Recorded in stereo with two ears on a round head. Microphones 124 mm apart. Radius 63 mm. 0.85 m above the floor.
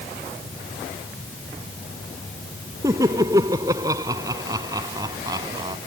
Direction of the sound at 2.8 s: 20° right (ahead or behind).